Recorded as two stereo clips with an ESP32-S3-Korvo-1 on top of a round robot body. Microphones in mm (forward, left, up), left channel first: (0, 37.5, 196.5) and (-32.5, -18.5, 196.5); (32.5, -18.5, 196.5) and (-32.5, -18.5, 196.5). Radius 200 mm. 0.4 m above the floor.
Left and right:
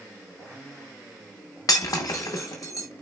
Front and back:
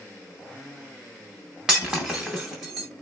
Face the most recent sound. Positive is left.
turn(degrees=100)